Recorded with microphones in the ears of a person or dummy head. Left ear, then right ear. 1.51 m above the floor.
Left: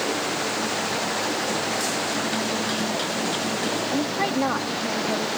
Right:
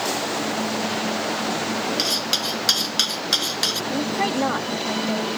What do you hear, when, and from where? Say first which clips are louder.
2.0 s cutlery clinking: right 3 dB; 75° right (ahead or behind)
3.9 s a woman speaking: right 1 dB; 10° right (ahead or behind)